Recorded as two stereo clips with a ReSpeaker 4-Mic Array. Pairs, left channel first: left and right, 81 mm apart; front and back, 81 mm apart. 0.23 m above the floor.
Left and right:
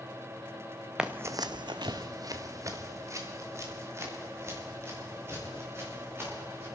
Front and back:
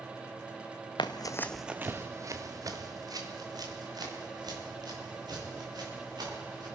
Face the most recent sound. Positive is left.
turn(degrees=-150)